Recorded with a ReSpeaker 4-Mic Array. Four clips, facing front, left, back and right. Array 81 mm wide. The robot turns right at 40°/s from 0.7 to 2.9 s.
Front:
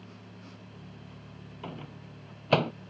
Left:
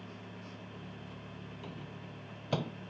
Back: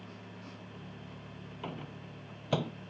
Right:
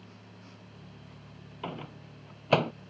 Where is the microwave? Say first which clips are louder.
Right 10 dB, even; 95° right; by 2.7 s 50° right.